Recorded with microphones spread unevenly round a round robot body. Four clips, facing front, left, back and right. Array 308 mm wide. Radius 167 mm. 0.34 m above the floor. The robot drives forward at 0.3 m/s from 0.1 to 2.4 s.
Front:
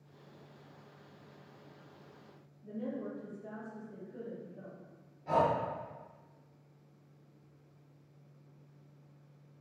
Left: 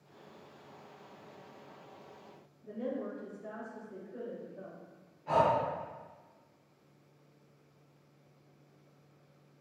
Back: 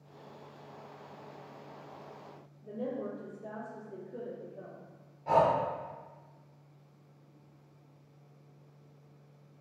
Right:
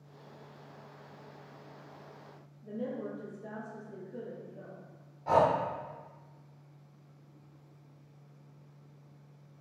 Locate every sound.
2.6 s a woman speaking: 160° right, 0.9 m
5.3 s breathing: 110° right, 0.6 m